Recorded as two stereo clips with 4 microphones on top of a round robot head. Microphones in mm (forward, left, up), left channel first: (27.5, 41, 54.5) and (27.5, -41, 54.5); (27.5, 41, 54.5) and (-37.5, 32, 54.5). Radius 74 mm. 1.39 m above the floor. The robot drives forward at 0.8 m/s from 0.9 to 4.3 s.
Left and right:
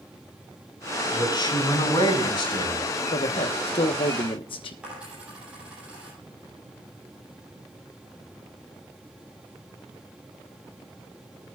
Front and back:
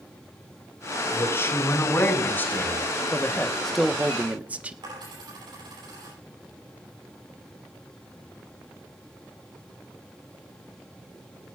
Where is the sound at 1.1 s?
55° left, 6.5 m; by 2.9 s 70° left, 6 m.